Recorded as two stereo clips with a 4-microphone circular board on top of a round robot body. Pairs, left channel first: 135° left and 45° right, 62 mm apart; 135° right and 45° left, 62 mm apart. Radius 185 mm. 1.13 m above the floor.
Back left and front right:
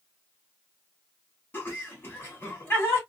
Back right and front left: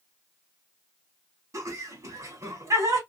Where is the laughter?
75° left, 2.5 m.